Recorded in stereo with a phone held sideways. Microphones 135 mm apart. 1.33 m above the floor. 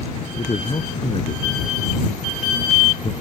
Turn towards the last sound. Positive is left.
turn(degrees=40)  # may be behind; listen again after turning